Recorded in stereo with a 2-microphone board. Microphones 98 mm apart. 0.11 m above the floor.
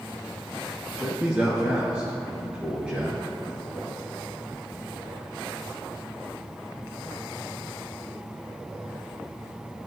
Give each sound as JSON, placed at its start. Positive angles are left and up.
{"t": 1.0, "sound": "a man speaking", "side_deg": -10, "distance_m": 1.3}